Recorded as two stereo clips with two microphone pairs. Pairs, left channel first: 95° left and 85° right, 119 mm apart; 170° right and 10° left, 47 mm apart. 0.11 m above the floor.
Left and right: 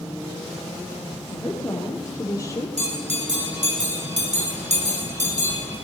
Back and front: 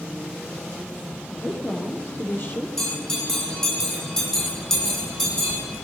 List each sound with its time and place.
1.3 s a woman speaking: 175° left, 4 m; by 2.7 s 155° left, 3.5 m
2.8 s a bell: 85° right, 4 m